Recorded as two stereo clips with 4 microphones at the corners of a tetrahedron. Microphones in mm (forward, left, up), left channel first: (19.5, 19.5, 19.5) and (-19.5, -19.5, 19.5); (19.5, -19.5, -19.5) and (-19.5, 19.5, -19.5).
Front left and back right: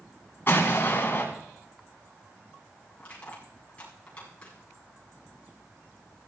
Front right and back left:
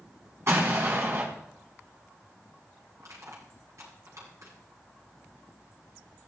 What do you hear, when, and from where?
0.5 s an explosion: 95° left, 5 m
3.0 s crushing: 110° left, 8 m